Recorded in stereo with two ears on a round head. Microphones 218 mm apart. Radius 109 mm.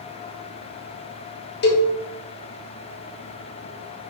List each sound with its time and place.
1.6 s a cowbell: 45° left (ahead or behind), 1.5 m